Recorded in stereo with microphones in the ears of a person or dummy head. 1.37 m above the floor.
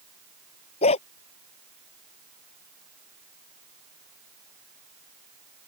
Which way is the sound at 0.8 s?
35° left (ahead or behind).